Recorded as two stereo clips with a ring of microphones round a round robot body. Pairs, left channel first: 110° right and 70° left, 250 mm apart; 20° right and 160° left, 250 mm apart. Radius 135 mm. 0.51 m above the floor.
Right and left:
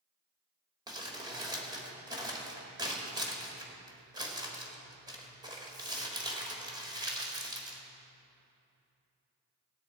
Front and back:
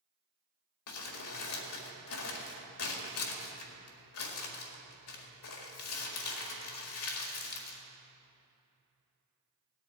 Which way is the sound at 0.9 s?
5° right.